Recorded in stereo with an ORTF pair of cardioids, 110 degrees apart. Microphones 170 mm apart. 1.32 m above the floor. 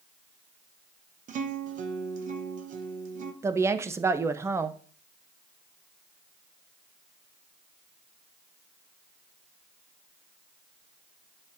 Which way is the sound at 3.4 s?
15° right.